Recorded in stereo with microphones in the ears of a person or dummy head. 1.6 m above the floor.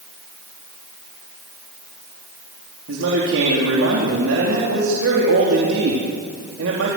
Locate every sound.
2.9 s a man speaking: 70° right (ahead or behind), 4 m